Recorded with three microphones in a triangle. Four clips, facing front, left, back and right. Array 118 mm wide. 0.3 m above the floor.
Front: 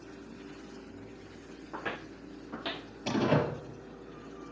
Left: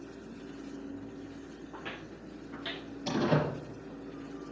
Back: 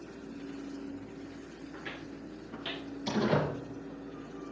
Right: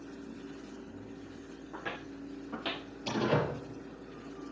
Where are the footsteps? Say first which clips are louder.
Right 5 dB, front 6 dB; 10° right, 0.8 m; by 2.9 s 55° right, 2 m.